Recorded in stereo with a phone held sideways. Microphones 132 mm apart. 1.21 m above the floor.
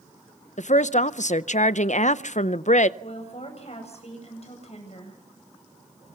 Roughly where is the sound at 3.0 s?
Left.